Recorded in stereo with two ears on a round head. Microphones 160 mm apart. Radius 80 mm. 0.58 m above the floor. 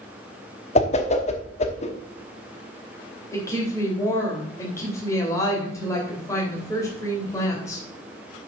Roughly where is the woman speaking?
Centre.